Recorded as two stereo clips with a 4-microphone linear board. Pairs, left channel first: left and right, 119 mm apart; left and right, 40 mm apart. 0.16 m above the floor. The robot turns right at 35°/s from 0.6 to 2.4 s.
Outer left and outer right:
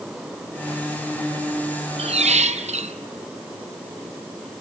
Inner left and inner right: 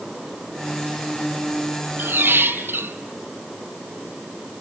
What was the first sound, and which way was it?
A squeak, 60° right (ahead or behind).